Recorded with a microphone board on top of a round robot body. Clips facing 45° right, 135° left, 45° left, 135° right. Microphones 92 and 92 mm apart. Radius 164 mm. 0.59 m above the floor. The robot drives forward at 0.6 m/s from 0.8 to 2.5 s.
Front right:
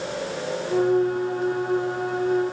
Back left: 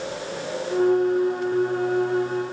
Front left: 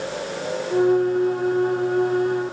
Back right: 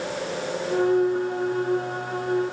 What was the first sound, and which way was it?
Only background noise.